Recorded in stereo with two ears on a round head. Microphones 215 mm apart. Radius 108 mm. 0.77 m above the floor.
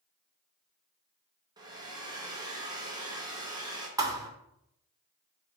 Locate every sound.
1.6 s a hair dryer: 15° right (ahead or behind), 1.0 m
4.0 s a thud: 15° right (ahead or behind), 0.6 m